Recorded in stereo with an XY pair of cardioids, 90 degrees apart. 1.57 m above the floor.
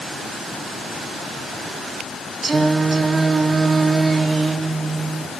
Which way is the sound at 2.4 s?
40° right.